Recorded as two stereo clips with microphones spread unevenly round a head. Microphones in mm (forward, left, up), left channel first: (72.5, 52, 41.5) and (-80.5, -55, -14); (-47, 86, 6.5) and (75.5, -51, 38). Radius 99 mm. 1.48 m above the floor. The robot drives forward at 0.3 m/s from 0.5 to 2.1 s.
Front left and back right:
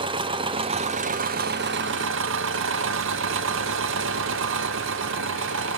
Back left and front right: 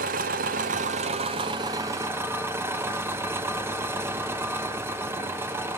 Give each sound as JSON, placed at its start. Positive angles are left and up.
{"t": 0.0, "sound": "an engine running", "azimuth_deg": -70, "distance_m": 0.7}